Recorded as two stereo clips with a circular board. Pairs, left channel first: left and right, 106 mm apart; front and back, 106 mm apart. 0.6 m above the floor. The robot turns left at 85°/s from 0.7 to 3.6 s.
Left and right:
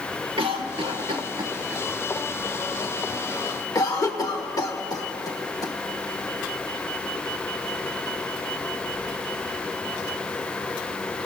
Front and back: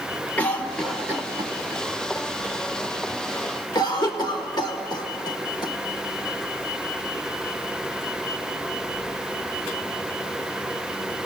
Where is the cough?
75° right, 1.6 m; by 5.7 s 40° left, 1.6 m.